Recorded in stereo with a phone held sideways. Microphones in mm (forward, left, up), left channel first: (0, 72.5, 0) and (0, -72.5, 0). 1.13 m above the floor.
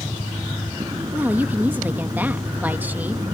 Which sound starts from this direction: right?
A vehicle, at 0.0 s.